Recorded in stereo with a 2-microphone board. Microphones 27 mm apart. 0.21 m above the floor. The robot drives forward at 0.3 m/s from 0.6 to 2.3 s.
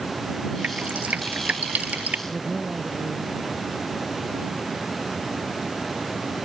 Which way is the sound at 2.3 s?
30° right (ahead or behind).